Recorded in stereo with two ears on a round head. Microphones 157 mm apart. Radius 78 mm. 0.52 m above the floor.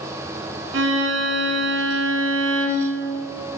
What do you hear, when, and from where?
0.7 s a violin: 70° right (ahead or behind), 2.5 m